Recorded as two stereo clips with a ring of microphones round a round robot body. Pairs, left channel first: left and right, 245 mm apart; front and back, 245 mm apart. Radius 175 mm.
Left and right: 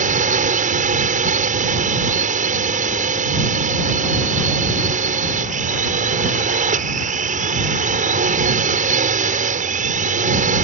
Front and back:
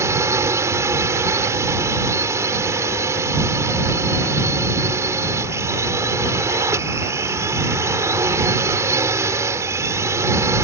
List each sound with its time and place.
0.0 s a drone: 110° right